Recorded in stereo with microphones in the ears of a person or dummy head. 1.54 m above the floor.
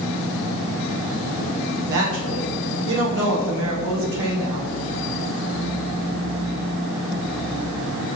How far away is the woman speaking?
About 1.8 m.